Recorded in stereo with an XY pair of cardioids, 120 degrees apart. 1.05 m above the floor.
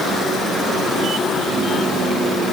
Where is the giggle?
No giggle in this recording.